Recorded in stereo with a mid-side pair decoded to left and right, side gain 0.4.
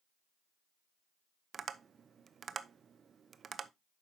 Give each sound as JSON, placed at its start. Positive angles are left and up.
{"t": 1.5, "sound": "tapping", "azimuth_deg": -50, "distance_m": 0.7}